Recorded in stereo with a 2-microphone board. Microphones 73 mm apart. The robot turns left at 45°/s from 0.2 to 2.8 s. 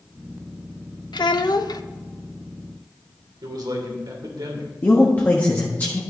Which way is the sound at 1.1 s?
90° left.